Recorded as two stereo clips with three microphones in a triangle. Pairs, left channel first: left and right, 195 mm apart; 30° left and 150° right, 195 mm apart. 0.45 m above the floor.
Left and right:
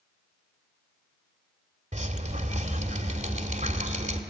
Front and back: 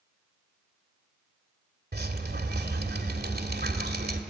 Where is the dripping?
130° right, 1.8 m.